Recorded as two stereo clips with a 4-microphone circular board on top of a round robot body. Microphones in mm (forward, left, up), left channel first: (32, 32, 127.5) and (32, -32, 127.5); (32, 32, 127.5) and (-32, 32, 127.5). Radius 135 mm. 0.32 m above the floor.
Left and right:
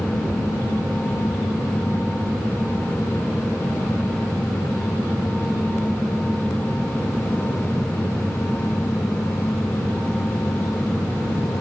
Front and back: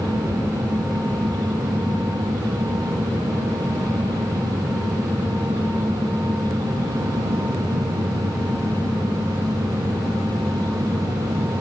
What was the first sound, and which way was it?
Only background noise.